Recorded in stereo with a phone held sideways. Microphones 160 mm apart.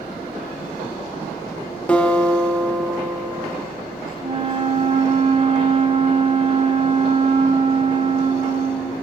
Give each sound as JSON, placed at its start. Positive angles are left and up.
{"t": 0.0, "sound": "a fan", "side_deg": -70, "distance_m": 3.5}
{"t": 1.9, "sound": "a guitar", "side_deg": 10, "distance_m": 1.2}
{"t": 4.2, "sound": "a flute", "side_deg": -35, "distance_m": 1.1}